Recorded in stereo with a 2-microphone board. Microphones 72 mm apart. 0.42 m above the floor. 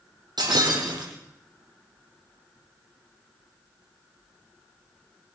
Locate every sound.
0.4 s breaking glass: 80° right, 8 m